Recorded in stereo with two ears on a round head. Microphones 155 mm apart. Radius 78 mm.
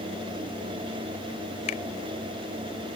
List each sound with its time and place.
1.7 s a finger snap: 40° left (ahead or behind)